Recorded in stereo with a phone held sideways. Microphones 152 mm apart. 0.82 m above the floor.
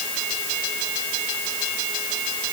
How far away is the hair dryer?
No hair dryer in this recording.